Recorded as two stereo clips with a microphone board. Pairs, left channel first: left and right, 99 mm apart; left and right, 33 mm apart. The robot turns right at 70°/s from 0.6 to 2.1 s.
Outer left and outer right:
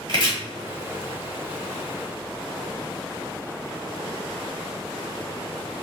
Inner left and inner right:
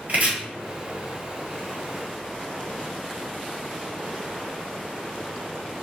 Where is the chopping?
55° right (ahead or behind), 0.9 m.